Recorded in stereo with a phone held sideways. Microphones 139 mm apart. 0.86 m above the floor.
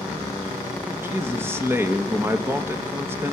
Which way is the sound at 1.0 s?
15° right (ahead or behind).